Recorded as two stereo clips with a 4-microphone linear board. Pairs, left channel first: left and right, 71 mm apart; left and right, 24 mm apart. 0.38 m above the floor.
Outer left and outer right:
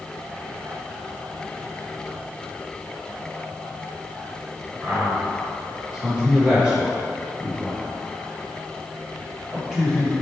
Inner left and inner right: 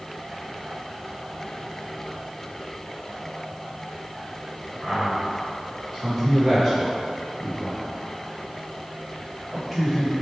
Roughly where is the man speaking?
Centre.